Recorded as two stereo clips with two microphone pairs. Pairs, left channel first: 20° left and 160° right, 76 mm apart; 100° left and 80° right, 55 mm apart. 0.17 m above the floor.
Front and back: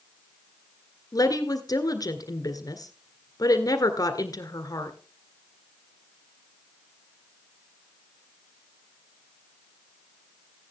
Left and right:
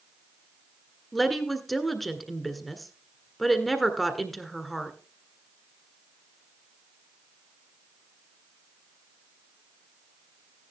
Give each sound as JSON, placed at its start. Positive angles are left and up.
{"t": 1.1, "sound": "a woman speaking", "azimuth_deg": 10, "distance_m": 1.7}